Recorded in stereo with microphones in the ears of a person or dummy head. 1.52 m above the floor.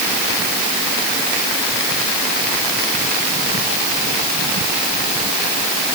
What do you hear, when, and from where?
Only background noise.